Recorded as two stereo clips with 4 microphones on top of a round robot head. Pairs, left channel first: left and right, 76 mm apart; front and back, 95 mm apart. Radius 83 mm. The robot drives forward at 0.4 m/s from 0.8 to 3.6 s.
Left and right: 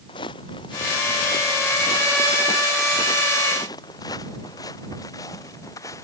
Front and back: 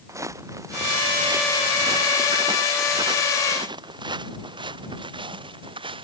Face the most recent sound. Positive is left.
turn(degrees=150)